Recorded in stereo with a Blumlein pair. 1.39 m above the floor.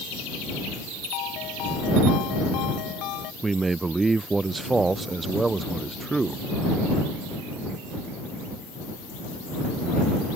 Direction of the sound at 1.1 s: 40° left.